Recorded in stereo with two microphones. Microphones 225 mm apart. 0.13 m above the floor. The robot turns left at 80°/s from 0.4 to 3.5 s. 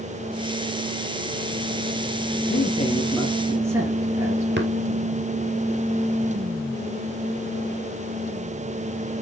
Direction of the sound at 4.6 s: 55° right (ahead or behind).